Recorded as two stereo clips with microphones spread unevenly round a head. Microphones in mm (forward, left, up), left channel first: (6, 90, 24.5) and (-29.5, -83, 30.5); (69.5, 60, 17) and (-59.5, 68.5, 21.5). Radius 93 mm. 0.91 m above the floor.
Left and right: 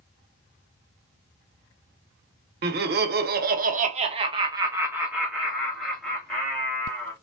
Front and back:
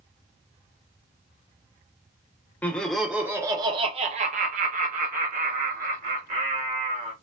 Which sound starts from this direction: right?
Laughter, at 2.6 s.